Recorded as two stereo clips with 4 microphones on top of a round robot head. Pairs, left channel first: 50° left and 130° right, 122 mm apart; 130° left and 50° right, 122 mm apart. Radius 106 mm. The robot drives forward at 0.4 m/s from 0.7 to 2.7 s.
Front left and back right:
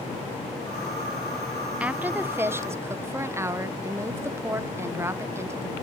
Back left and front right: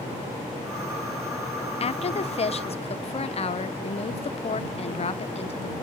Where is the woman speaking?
150° left, 0.8 m; by 5.7 s 160° left, 1.1 m.